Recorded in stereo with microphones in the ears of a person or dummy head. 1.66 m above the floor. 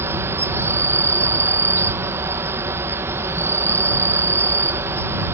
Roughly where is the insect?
Centre.